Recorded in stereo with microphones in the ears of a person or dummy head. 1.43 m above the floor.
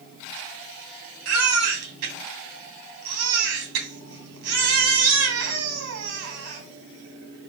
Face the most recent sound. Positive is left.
turn(degrees=-80)